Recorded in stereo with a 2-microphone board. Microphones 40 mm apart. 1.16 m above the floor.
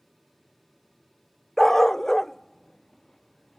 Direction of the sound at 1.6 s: 10° left (ahead or behind).